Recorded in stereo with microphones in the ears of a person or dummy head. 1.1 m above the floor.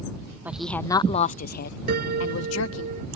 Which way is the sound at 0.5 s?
5° right (ahead or behind).